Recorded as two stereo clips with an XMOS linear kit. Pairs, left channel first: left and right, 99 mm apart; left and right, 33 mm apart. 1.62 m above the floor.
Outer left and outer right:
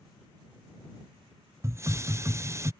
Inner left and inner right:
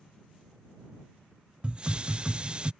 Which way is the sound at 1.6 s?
30° right (ahead or behind).